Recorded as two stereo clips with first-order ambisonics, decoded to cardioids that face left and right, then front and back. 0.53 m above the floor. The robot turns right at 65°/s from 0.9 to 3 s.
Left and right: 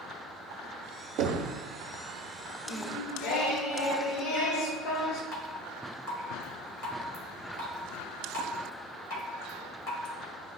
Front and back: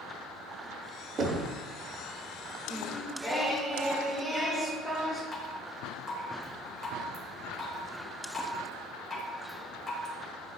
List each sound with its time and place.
1.2 s knocking: 115° right, 0.8 m; by 1.5 s 90° right, 0.8 m
2.7 s singing: 75° left, 1.1 m; by 5.2 s 95° left, 1.1 m
5.3 s dripping: 70° left, 1.8 m